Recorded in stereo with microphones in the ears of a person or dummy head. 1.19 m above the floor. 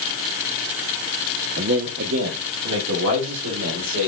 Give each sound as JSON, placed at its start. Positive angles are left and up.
{"t": 1.6, "sound": "a man speaking", "side_deg": -55, "distance_m": 0.5}